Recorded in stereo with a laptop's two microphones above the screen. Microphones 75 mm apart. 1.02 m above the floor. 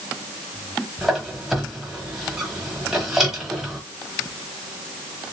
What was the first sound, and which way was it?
A squeak, 5° right (ahead or behind).